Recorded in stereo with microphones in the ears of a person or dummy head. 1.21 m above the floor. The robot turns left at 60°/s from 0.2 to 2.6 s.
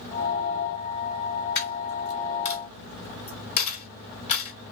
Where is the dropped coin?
45° left (ahead or behind), 1.4 m; by 4.5 s 35° left (ahead or behind), 1.4 m.